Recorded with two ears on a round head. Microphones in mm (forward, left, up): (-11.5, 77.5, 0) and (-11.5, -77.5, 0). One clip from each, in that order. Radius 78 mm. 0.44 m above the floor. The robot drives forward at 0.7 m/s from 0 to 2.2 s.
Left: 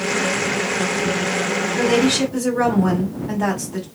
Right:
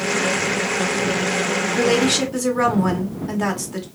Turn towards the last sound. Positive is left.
turn(degrees=-25)  # may be behind; listen again after turning